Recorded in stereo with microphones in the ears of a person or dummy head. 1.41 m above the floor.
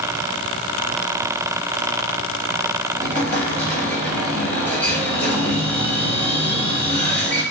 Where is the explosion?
10° left (ahead or behind), 1.1 m.